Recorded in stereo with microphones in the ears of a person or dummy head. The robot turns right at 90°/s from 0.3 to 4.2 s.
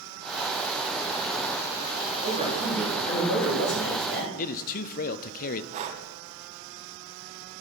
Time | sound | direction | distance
2.2 | a man speaking | 45° right | 4.5 m
4.4 | a man speaking | 45° left (ahead or behind) | 0.6 m
5.7 | breathing | 35° right (ahead or behind) | 0.9 m